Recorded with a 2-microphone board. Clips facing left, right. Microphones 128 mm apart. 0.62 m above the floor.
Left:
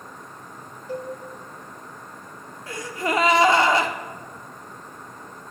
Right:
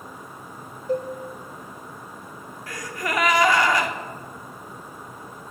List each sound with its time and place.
0.9 s a cowbell: 45° right (ahead or behind), 0.9 m
2.7 s a gasp: 30° left (ahead or behind), 0.6 m